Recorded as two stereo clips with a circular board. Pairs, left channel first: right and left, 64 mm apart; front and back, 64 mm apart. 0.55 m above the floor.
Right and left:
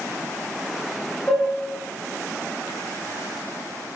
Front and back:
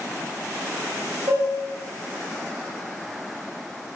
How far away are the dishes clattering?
About 1.2 m.